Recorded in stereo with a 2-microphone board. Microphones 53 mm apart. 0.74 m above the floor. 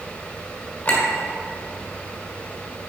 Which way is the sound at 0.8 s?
35° left (ahead or behind).